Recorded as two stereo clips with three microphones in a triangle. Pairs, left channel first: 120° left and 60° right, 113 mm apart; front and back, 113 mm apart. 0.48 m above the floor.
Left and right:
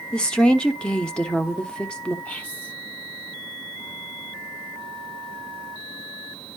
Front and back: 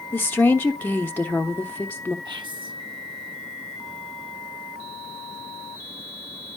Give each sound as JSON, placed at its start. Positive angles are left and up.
{"t": 0.1, "sound": "a woman speaking", "azimuth_deg": 50, "distance_m": 1.0}
{"t": 2.2, "sound": "whispering", "azimuth_deg": -170, "distance_m": 1.5}